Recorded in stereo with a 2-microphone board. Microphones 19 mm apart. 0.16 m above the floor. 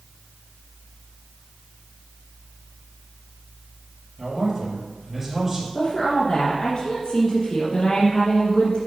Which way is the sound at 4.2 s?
15° right (ahead or behind).